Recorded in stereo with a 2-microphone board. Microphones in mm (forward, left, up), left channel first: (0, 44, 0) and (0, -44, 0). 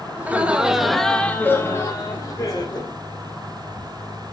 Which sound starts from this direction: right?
Laughter, at 0.2 s.